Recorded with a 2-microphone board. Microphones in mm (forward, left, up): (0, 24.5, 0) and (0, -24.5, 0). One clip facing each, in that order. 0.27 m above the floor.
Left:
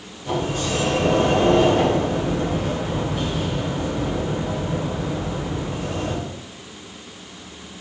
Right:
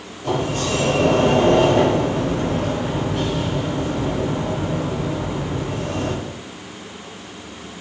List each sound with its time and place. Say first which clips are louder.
0.2 s a sliding door: right 2 dB; 60° right (ahead or behind), 4 m